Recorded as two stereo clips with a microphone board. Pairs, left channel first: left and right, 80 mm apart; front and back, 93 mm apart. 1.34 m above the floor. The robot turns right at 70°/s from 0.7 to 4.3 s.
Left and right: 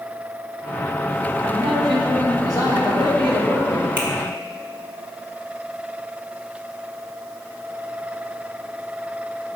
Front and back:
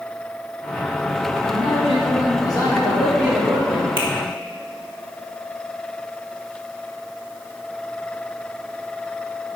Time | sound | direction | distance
1.4 | a man speaking | 30° right | 2.5 m
4.0 | a finger snap | 155° right | 2 m